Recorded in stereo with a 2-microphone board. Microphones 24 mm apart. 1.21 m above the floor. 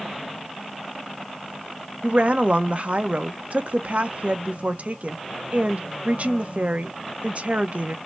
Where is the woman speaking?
60° right (ahead or behind), 0.8 m.